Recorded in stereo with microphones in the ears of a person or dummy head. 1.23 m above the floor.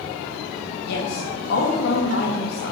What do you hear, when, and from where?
0.8 s a woman speaking: 60° left (ahead or behind), 2.0 m